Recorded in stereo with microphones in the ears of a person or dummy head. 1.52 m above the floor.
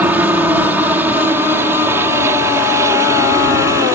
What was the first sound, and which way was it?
A helicopter, 5° right (ahead or behind).